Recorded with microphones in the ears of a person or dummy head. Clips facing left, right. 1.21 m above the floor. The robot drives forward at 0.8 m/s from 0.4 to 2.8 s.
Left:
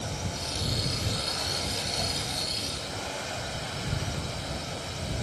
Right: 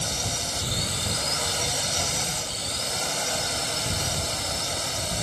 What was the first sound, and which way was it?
A drone, 85° right.